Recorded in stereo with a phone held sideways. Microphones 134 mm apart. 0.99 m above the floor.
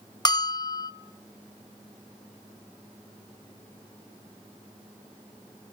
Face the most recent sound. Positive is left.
turn(degrees=30)  # may be behind; listen again after turning